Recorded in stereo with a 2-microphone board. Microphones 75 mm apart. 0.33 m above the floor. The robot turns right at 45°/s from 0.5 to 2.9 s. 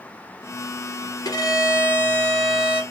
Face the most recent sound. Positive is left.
turn(degrees=-165)